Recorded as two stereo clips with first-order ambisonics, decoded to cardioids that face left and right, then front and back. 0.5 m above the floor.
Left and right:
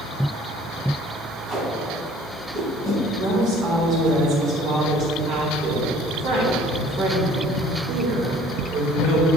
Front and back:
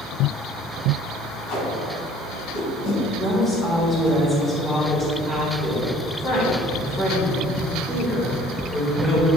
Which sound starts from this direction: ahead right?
A woman speaking, at 3.2 s.